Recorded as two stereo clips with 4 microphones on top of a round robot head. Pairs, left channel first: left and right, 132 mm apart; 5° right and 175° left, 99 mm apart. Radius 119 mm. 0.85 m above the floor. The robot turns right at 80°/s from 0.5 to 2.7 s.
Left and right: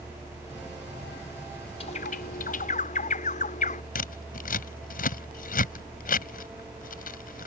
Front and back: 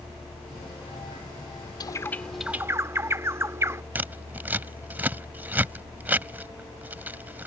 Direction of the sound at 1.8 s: 40° left.